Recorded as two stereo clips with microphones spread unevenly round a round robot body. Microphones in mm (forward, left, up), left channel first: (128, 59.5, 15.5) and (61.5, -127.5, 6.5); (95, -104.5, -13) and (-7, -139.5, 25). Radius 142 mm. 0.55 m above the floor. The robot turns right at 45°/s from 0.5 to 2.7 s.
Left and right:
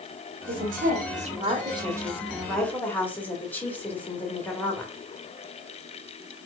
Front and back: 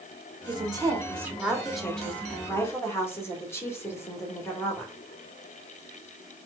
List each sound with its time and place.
0.5 s a woman speaking: 110° right, 1.5 m; by 4.9 s 10° right, 1.5 m